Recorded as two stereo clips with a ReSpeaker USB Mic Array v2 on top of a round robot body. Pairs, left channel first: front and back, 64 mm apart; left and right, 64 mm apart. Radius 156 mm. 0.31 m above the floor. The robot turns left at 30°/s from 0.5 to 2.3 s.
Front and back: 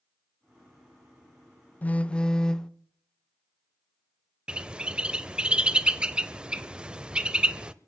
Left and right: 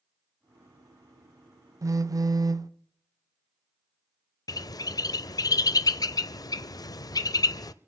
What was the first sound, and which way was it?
A phone buzzing, 65° right.